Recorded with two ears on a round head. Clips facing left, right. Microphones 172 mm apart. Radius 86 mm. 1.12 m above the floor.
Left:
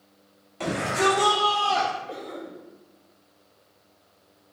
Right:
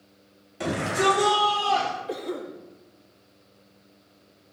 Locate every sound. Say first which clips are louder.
0.6 s a shout: even; 10° right (ahead or behind), 3.5 m; by 1.9 s 5° left (ahead or behind), 1.6 m
2.1 s a cough: right 5 dB; 70° right (ahead or behind), 1.9 m